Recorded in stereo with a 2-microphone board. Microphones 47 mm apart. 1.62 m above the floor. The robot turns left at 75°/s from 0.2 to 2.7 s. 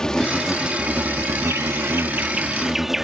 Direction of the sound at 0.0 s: 15° left.